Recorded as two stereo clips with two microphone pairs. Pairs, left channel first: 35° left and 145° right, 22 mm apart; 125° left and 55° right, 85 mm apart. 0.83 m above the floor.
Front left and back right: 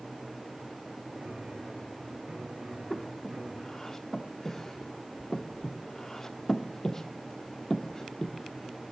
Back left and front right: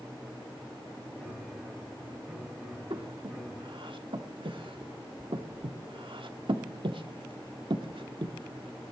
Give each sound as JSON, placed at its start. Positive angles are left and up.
{"t": 1.2, "sound": "a piano", "azimuth_deg": -150, "distance_m": 7.5}
{"t": 2.9, "sound": "breathing", "azimuth_deg": -35, "distance_m": 1.1}